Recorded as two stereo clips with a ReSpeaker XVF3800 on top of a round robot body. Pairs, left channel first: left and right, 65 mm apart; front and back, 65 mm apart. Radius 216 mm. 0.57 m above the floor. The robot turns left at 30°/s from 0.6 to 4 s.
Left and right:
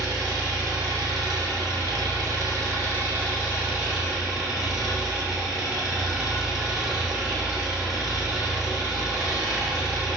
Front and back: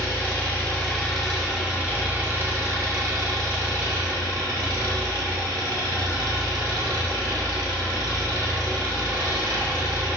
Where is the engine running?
70° right, 2.5 m; by 10.2 s 170° right, 2.5 m.